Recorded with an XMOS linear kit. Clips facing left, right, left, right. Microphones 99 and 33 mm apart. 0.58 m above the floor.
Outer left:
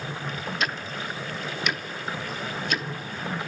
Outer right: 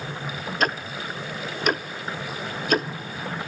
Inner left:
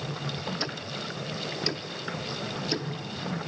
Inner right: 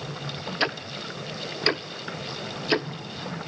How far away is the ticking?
About 0.6 m.